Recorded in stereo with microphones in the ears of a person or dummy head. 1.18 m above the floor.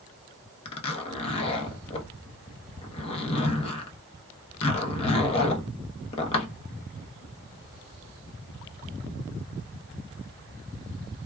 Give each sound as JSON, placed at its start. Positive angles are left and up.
{"t": 0.7, "sound": "a zipper", "side_deg": 35, "distance_m": 0.7}